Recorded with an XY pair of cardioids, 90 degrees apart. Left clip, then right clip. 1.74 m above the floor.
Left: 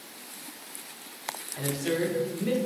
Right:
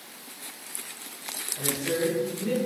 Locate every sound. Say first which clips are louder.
1.6 s a man speaking: right 1 dB; 55° left, 0.8 m